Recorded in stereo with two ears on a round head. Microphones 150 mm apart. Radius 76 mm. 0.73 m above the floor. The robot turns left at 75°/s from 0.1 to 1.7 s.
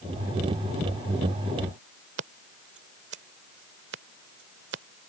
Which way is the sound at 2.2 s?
75° right (ahead or behind).